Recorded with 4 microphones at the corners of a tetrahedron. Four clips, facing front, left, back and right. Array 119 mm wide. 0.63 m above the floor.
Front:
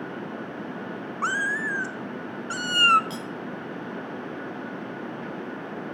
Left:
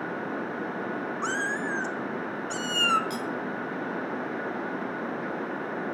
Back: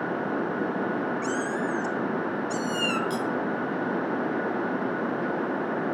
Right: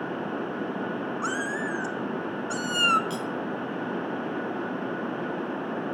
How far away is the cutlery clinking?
About 2.5 m.